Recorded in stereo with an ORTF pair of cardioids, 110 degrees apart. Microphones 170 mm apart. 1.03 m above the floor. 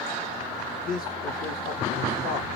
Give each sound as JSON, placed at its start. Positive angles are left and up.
{"t": 0.8, "sound": "a man speaking", "azimuth_deg": 60, "distance_m": 1.4}